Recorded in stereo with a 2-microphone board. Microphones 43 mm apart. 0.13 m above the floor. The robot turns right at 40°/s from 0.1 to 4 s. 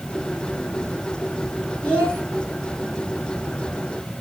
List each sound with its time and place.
1.8 s a child speaking: 25° left (ahead or behind), 1.3 m; by 2.2 s 30° left (ahead or behind), 1.3 m